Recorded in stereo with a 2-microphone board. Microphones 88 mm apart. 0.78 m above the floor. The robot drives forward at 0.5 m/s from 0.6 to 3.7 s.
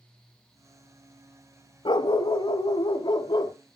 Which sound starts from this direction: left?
A dog barking, at 1.9 s.